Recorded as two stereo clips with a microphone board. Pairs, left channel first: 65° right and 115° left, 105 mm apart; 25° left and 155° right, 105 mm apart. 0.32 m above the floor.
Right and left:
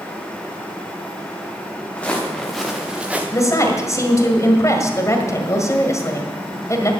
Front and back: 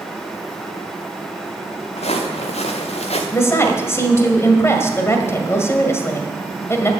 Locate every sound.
2.0 s footsteps: 10° left, 2.5 m; by 3.2 s 35° left, 2.0 m
3.3 s a woman speaking: 25° right, 1.8 m